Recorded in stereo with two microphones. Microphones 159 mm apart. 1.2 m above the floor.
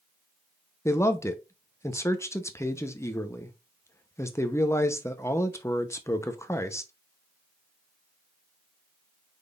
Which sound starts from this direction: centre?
A man speaking, at 0.8 s.